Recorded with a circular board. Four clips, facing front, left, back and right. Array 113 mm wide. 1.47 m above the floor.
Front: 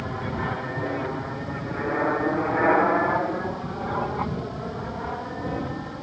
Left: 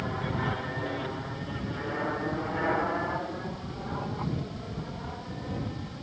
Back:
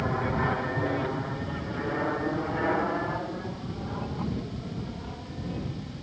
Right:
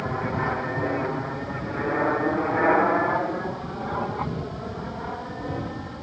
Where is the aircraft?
120° right; by 6.0 s 30° right.